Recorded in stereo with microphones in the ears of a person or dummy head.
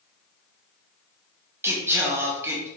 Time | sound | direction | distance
1.6 | singing | 10° right (ahead or behind) | 1.0 m